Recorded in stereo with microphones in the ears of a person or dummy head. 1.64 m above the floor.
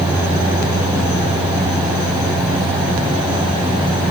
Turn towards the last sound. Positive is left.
No sound to turn to.